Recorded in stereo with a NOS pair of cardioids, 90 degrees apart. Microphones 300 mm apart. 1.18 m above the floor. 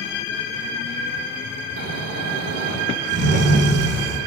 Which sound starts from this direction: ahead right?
Snoring, at 1.8 s.